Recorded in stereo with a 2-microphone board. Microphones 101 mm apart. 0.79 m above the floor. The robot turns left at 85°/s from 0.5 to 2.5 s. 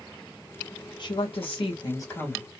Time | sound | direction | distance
1.0 | a woman speaking | 125° left | 1.6 m